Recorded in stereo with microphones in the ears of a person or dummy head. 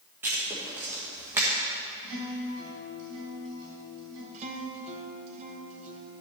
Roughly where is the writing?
Centre.